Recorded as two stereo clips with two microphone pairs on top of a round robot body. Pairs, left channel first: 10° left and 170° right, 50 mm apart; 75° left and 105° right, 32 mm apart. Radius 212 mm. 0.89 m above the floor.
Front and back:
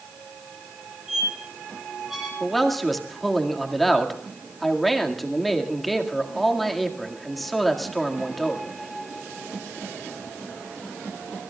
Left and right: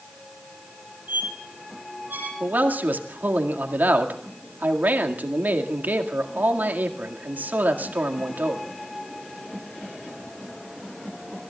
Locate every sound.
1.1 s a squeak: 85° right, 9 m
2.4 s a man speaking: 80° right, 1.9 m